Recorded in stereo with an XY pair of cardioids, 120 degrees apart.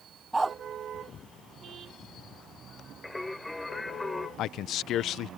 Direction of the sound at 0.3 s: 15° right.